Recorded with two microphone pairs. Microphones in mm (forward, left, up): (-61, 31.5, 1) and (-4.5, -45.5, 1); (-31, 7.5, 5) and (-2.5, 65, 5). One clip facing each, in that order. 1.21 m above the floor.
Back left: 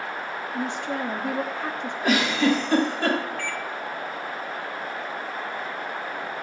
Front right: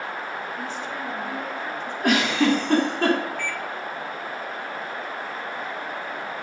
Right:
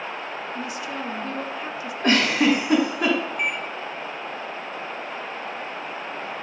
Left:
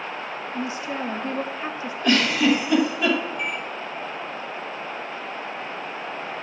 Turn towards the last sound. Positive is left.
turn(degrees=-145)